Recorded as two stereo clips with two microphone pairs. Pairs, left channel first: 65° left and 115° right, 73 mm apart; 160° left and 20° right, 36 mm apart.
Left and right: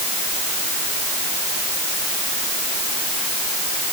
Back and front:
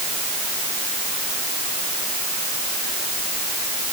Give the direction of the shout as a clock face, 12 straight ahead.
No shout in this recording.